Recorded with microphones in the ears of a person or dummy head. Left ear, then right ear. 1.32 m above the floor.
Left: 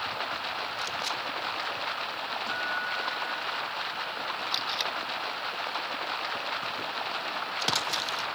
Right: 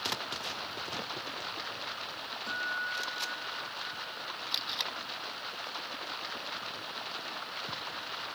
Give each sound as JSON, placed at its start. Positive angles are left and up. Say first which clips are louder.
{"t": 0.0, "sound": "running water", "louder": "left 3 dB", "side_deg": 25}
{"t": 2.5, "sound": "a guitar", "louder": "left 1 dB", "side_deg": -15}
{"t": 4.5, "sound": "tape being pulled", "louder": "left 2 dB", "side_deg": 0}